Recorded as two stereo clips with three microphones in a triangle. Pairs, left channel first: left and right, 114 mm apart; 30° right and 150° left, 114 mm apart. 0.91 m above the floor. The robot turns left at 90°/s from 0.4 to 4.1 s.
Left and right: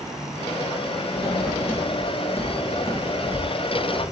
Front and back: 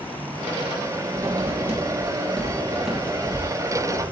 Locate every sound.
1.1 s writing: 145° right, 1.7 m; by 4.0 s 40° right, 1.7 m